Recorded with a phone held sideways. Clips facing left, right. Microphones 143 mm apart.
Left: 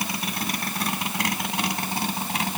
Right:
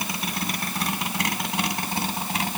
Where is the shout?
I don't hear a shout.